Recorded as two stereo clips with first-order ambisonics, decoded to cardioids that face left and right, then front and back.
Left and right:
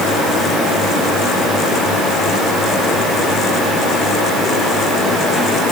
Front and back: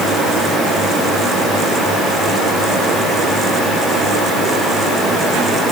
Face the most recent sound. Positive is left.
No sound to turn to.